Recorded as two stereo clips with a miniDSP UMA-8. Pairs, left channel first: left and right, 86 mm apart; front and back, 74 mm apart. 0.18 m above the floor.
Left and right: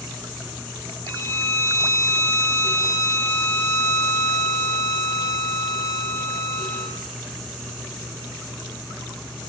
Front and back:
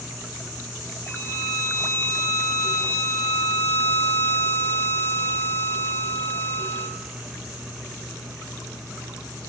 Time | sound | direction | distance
1.1 | a violin | 40° left | 1.8 m